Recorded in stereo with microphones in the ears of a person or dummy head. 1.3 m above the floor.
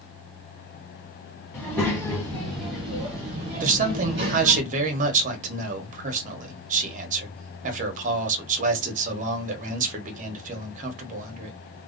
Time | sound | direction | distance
1.5 | a child speaking | 10° left (ahead or behind) | 1.2 m
3.6 | a man speaking | 50° right (ahead or behind) | 0.9 m